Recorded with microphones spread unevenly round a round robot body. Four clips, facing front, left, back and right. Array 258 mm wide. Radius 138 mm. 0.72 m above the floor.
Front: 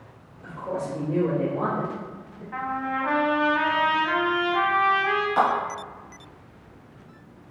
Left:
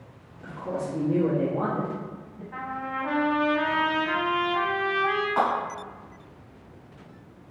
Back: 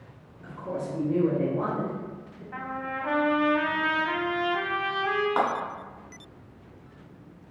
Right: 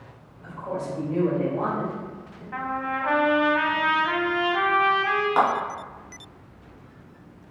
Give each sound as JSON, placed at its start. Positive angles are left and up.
{"t": 0.4, "sound": "a woman speaking", "azimuth_deg": 90, "distance_m": 1.3}
{"t": 2.5, "sound": "a trumpet", "azimuth_deg": -170, "distance_m": 0.6}
{"t": 5.4, "sound": "a clap", "azimuth_deg": -135, "distance_m": 2.0}